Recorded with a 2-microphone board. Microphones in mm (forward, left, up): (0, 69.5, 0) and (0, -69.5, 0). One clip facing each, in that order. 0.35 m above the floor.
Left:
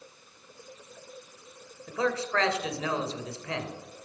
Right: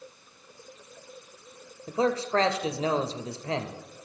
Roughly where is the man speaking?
Right.